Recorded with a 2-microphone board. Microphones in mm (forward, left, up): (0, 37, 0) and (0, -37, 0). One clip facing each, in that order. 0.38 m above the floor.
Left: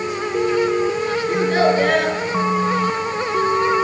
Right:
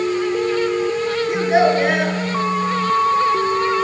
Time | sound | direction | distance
1.3 | a child speaking | 10° right (ahead or behind) | 3.5 m